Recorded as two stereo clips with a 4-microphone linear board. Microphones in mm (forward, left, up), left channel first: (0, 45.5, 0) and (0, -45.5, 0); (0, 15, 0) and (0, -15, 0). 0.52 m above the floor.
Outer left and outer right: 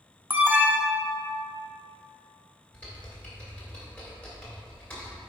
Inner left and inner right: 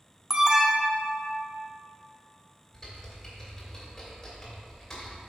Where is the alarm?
20° right (ahead or behind), 0.7 m.